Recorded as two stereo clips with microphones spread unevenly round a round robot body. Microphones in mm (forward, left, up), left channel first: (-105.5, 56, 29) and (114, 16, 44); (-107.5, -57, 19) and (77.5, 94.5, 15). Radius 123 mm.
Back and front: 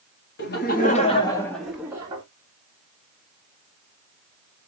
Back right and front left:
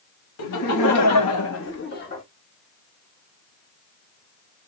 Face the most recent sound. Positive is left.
turn(degrees=-80)